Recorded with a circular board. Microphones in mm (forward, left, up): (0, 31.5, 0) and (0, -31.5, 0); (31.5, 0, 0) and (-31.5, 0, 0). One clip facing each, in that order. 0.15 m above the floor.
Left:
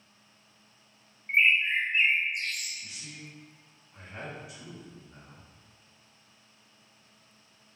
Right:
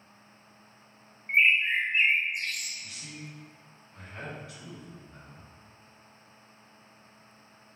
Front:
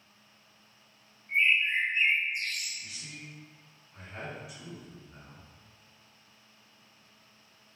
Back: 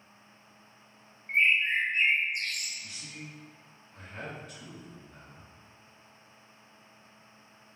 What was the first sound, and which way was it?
A bird, 175° right.